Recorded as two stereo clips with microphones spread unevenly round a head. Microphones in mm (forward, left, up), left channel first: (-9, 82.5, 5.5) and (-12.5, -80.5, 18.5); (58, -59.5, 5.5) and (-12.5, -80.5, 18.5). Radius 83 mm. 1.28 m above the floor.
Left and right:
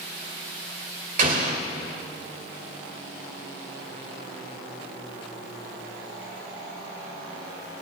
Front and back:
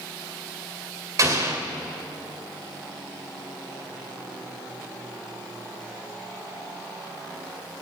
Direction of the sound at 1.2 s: 130° right.